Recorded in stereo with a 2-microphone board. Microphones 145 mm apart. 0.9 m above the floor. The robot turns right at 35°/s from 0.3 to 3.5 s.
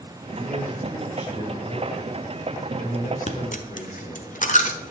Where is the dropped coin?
60° left (ahead or behind), 1.2 m; by 4.9 s 65° left (ahead or behind), 1.2 m.